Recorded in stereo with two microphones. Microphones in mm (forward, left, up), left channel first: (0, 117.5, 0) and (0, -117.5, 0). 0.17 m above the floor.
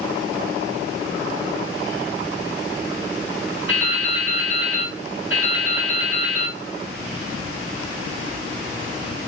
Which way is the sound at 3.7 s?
60° left (ahead or behind).